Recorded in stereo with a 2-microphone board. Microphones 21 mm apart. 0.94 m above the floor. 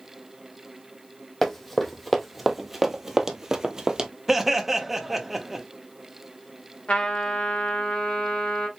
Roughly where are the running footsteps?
Centre.